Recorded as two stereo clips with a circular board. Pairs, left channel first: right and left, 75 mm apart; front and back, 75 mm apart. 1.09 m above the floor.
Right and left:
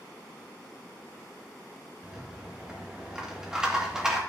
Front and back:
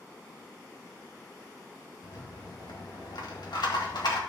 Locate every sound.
2.0 s a rattle: 10° left, 1.9 m